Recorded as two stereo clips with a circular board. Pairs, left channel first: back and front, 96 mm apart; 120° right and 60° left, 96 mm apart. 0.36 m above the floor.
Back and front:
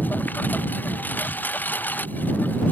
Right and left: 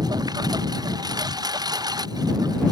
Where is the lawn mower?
110° left.